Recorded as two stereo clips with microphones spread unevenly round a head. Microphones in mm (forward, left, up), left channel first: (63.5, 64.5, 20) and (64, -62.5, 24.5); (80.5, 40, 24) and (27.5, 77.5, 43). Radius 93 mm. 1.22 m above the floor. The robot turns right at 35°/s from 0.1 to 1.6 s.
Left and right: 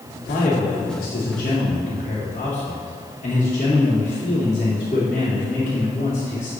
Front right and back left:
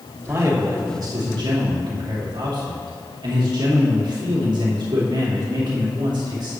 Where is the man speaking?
95° left, 2.5 m; by 6.5 s 140° left, 2.5 m.